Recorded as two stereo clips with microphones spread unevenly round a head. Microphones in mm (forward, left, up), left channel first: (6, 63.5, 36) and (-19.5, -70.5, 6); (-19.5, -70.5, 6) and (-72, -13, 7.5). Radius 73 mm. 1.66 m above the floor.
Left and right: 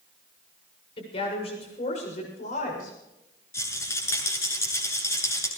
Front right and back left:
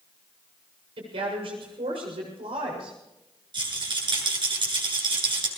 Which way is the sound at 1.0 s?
130° left.